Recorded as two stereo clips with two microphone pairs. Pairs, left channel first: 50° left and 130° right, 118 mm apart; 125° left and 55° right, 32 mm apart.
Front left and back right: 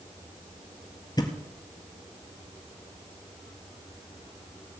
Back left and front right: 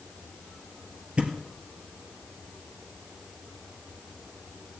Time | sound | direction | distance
1.2 | a thud | 5° right | 1.7 m